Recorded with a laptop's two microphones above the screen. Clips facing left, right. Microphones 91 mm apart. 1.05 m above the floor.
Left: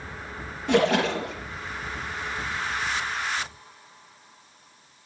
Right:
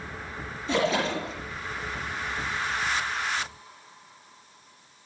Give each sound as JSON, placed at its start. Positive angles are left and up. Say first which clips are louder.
{"t": 0.7, "sound": "a splash", "louder": "left 4 dB", "side_deg": 60, "distance_m": 3.0}